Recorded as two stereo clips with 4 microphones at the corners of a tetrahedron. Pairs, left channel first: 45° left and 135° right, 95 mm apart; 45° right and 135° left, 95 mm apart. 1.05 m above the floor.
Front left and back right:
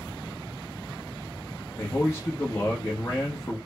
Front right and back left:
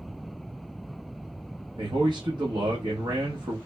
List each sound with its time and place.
1.8 s a man speaking: 105° left, 0.9 m